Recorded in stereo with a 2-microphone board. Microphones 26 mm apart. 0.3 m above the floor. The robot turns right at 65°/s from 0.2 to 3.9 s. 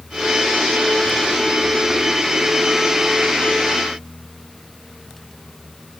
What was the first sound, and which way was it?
Only background noise.